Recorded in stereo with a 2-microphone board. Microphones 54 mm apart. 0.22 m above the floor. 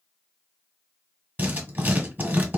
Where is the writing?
35° right (ahead or behind), 1.2 m.